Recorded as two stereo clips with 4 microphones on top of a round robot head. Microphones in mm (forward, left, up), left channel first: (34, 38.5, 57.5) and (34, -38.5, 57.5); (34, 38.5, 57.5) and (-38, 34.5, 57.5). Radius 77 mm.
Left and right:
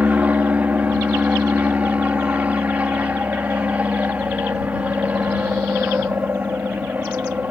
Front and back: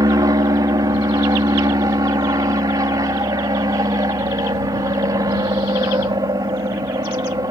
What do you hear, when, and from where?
0.0 s an aircraft: 160° right